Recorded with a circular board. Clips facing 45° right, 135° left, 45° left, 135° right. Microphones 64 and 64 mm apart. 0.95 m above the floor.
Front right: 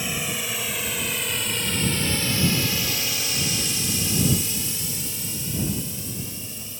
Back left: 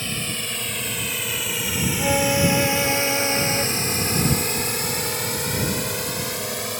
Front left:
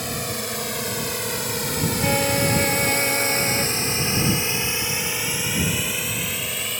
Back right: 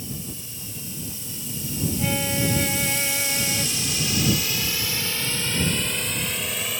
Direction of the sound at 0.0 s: 35° left.